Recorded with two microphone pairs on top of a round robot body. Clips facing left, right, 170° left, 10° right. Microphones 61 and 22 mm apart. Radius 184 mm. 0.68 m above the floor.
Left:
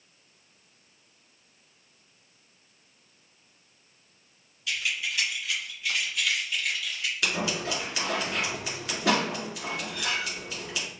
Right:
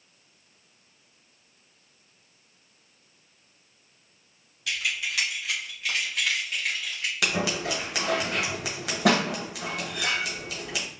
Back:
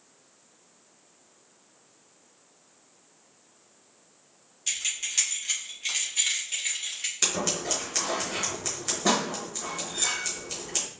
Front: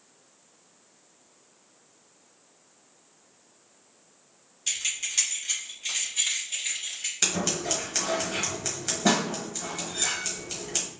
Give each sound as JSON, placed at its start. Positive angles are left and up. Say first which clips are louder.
{"t": 4.7, "sound": "keys jangling", "louder": "right 1 dB, front 1 dB", "azimuth_deg": -95, "distance_m": 1.6}
{"t": 7.2, "sound": "scissors", "louder": "right 3 dB, front 1 dB", "azimuth_deg": -95, "distance_m": 1.3}